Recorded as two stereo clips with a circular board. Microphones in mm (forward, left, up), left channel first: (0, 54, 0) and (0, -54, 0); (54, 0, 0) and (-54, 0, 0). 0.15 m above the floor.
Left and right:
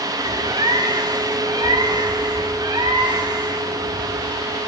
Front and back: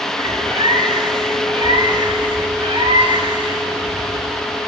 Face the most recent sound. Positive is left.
turn(degrees=-135)